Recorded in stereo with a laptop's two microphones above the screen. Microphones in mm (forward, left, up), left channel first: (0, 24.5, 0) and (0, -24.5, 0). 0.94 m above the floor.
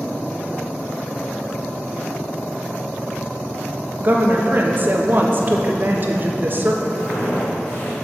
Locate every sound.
4.0 s a woman speaking: 45° right (ahead or behind), 1.0 m
7.0 s footsteps: 35° left (ahead or behind), 3 m